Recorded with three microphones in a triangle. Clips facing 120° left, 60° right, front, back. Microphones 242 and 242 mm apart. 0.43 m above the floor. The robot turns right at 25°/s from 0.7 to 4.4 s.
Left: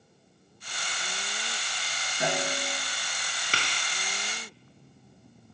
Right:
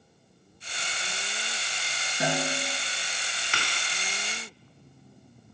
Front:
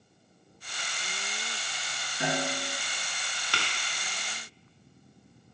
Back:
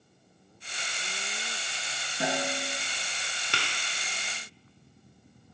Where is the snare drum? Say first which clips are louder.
Right 1 dB, even; 130° right, 2.5 m; by 2.8 s 115° right, 2.5 m.